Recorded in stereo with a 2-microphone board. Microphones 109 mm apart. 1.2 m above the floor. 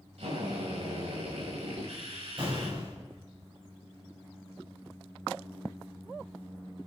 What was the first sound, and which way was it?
A drill, 75° right (ahead or behind).